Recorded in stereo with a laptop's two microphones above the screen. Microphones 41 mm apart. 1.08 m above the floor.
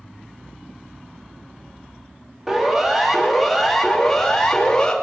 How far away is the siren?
About 3.5 m.